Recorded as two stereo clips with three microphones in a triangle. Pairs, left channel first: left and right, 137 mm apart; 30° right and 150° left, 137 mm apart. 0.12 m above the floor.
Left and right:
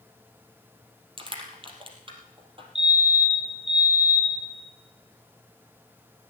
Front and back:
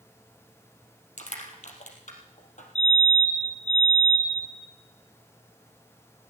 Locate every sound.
1.2 s crushing: 45° right, 3 m
2.8 s a fire alarm: 55° right, 8 m